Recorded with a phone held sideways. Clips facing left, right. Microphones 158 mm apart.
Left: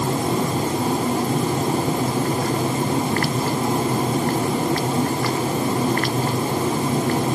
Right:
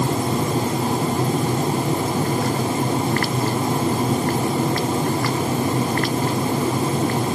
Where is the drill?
I don't hear a drill.